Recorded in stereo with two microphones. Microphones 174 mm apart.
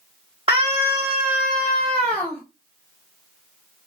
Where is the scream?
30° right (ahead or behind), 1.1 m; by 2.4 s 10° left (ahead or behind), 2.0 m.